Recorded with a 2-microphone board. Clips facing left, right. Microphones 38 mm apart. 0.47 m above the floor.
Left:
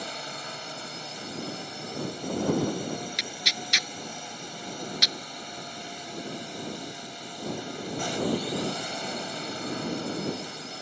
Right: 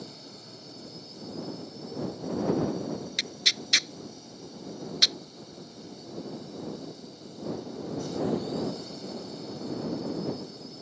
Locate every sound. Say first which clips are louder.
0.0 s a drone: left 9 dB; 60° left (ahead or behind)
3.2 s tearing paper: left 1 dB; 5° left (ahead or behind)